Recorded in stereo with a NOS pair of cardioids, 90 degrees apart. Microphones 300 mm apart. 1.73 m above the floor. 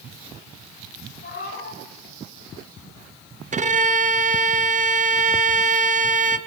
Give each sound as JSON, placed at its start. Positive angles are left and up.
{"t": 1.2, "sound": "a cat meowing", "azimuth_deg": 45, "distance_m": 4.0}
{"t": 3.5, "sound": "a violin", "azimuth_deg": -25, "distance_m": 0.9}